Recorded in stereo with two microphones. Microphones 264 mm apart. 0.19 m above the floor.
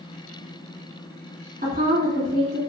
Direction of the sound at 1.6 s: 35° right (ahead or behind).